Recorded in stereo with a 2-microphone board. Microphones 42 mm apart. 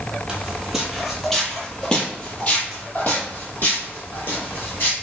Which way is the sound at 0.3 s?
15° right (ahead or behind).